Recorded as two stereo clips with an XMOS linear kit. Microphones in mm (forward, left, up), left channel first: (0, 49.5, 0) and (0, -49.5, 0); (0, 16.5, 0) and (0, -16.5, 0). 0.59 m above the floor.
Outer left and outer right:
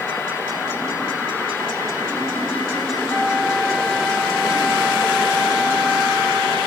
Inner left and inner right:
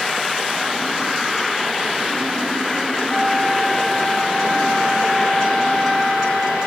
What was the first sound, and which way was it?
A flute, 30° left (ahead or behind).